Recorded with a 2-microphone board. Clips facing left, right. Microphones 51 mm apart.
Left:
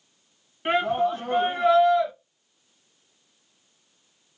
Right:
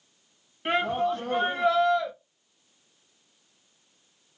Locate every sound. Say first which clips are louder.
0.7 s a shout: left 3 dB; 15° left (ahead or behind), 1.3 m